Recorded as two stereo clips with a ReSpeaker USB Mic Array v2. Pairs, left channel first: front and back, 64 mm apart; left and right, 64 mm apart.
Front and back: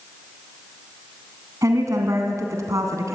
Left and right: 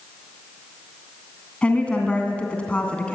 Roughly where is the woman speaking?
Behind.